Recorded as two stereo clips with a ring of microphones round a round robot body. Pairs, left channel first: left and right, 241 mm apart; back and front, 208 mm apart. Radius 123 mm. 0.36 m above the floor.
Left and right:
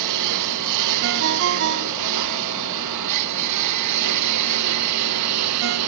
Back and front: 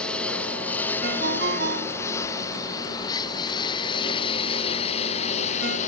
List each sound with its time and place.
0.0 s a lawn mower: 95° right; by 5.9 s 115° right
1.0 s a ringtone: 50° right